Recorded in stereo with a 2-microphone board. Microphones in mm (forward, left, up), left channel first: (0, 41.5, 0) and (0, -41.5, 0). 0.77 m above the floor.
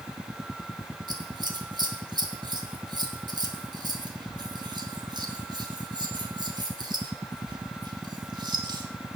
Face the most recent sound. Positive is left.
turn(degrees=-60)  # may be behind; listen again after turning